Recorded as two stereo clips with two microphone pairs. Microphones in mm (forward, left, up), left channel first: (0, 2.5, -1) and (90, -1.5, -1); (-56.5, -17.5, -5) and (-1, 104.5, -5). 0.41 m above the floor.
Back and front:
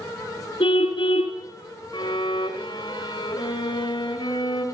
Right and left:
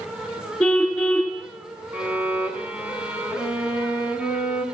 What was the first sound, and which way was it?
A car horn, 160° left.